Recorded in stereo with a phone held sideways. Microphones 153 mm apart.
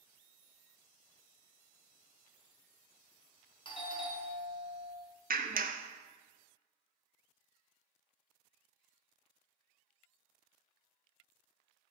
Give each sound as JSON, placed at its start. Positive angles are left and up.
{"t": 3.6, "sound": "a doorbell", "side_deg": 30, "distance_m": 1.0}
{"t": 5.3, "sound": "a clap", "side_deg": -70, "distance_m": 0.6}